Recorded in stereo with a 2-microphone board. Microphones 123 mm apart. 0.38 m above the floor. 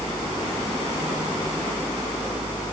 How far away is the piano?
I don't hear a piano.